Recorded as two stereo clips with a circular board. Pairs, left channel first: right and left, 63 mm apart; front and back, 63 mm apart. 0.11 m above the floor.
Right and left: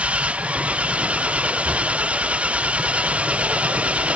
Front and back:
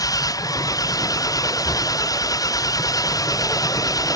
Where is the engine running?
20° left.